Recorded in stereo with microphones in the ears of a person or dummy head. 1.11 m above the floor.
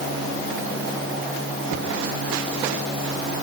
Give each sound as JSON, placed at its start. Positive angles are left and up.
{"t": 1.7, "sound": "a cupboard door", "side_deg": -65, "distance_m": 2.0}